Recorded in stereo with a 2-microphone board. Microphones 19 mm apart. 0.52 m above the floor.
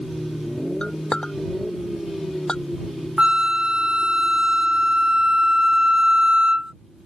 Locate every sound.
0.8 s a clink: 50° left (ahead or behind)
3.2 s a flute: 60° right (ahead or behind)